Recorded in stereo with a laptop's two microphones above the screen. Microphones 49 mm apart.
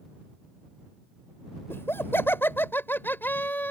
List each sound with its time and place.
1.7 s laughter: 50° left (ahead or behind); by 3.7 s 40° left (ahead or behind)